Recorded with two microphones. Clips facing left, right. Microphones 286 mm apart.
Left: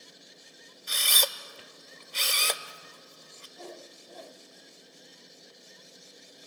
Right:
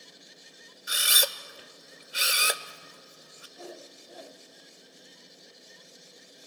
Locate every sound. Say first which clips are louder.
0.9 s a camera shutter: right 1 dB; 10° right (ahead or behind), 0.6 m
3.6 s a whoosh: right 1 dB; 5° right (ahead or behind), 0.6 m